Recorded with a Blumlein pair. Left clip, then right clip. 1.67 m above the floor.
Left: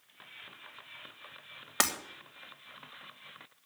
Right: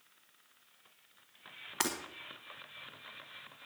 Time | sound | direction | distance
1.8 | breaking glass | 40° left | 2.5 m